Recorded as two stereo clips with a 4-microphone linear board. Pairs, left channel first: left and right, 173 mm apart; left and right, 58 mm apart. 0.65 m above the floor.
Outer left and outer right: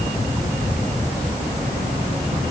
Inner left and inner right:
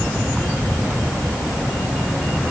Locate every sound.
Only background noise.